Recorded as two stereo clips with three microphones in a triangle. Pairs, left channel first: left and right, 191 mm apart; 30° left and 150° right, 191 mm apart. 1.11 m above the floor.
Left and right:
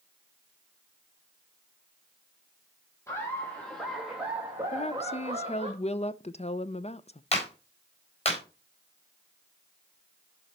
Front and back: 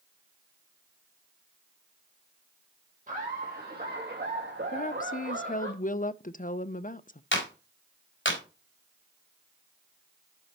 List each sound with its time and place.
3.1 s laughter: 165° left, 2.5 m; by 5.7 s 145° right, 2.5 m
4.7 s a woman speaking: 50° left, 0.5 m
7.3 s a clap: 30° left, 4 m